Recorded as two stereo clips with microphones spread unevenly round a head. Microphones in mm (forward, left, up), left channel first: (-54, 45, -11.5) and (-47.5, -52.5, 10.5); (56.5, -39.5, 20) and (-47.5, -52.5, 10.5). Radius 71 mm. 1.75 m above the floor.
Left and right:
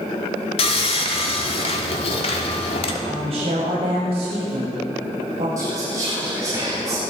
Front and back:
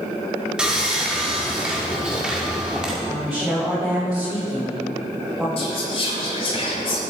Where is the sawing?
100° left, 1.8 m.